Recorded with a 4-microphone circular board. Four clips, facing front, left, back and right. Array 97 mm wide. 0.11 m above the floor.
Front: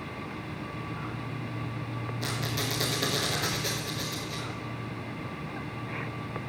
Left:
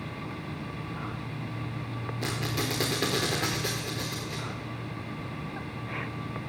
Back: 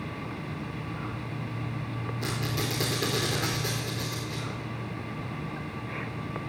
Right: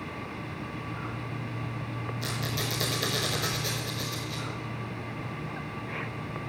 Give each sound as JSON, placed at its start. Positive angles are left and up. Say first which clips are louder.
{"t": 2.2, "sound": "a squeak", "louder": "left 4 dB, back 2 dB", "azimuth_deg": 90, "distance_m": 4.5}